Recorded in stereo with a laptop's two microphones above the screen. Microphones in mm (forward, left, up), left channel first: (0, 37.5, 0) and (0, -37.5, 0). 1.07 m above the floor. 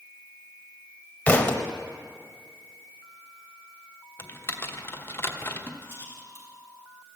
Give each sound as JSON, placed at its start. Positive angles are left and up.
{"t": 1.3, "sound": "a thud", "side_deg": 20, "distance_m": 0.9}
{"t": 4.2, "sound": "typing on a keyboard", "side_deg": 25, "distance_m": 0.9}
{"t": 5.8, "sound": "a rattle", "side_deg": 30, "distance_m": 3.0}